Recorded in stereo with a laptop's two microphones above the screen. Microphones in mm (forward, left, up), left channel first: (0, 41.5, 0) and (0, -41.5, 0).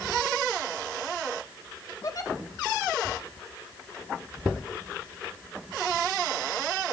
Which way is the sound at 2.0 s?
45° left (ahead or behind).